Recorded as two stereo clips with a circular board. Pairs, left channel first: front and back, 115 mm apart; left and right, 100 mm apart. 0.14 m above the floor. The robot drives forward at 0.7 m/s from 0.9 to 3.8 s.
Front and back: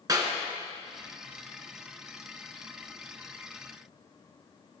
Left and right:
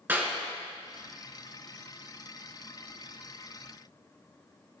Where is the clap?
150° right, 1.4 m.